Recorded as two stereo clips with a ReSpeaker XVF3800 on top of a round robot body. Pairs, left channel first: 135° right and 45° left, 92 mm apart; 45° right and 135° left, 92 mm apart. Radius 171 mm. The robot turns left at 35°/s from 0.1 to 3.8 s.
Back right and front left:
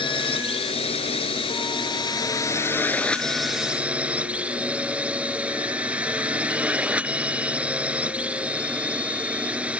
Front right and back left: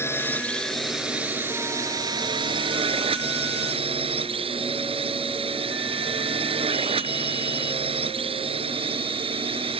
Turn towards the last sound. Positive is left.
turn(degrees=120)